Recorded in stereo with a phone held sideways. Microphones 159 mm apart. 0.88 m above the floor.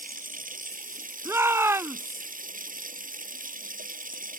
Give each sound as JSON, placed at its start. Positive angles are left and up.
{"t": 0.0, "sound": "running water", "side_deg": -65}
{"t": 1.2, "sound": "a shout", "side_deg": -15}